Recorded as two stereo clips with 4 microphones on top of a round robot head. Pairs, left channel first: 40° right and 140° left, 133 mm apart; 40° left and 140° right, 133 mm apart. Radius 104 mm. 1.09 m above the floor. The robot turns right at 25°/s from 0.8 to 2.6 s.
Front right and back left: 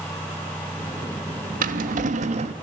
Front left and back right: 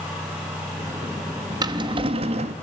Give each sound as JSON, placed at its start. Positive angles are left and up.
{"t": 1.6, "sound": "a drawer", "azimuth_deg": 160, "distance_m": 1.0}